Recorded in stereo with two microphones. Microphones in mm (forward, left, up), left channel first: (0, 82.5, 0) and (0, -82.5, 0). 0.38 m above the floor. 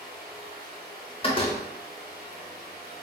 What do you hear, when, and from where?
0.0 s running water: 10° left (ahead or behind), 1.6 m
1.2 s a door slam: 35° left (ahead or behind), 0.6 m